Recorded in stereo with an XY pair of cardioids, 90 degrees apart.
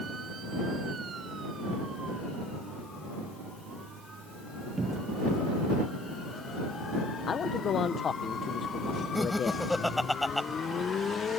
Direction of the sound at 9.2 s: 10° left.